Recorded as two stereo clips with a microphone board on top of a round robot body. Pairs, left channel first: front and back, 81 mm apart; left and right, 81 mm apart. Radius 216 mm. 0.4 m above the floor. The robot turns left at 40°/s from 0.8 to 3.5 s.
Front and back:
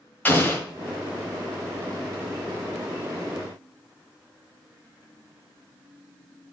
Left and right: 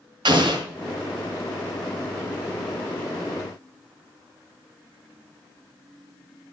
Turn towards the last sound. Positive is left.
turn(degrees=-175)